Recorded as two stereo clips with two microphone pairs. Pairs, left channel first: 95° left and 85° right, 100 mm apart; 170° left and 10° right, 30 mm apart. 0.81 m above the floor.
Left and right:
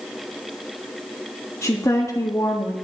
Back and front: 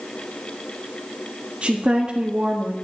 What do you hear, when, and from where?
1.6 s a woman speaking: 35° left, 1.6 m